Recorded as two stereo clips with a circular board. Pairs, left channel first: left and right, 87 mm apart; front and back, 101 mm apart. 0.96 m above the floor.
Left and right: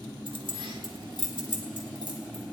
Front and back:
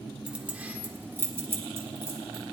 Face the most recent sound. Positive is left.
turn(degrees=-115)